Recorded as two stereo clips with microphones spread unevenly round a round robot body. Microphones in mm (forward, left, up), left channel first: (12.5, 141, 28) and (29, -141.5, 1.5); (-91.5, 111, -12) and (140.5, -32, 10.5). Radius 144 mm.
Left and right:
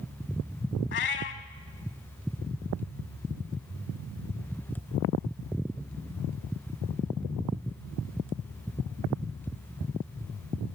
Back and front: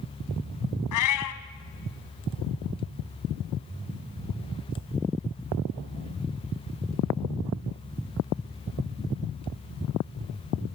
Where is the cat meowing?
145° left, 1.4 m.